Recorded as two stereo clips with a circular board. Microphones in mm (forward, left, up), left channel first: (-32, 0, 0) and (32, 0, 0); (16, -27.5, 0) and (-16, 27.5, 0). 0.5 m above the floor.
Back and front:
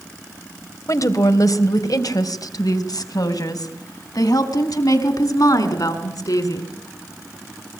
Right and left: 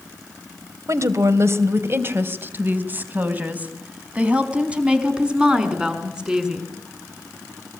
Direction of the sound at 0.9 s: 155° left.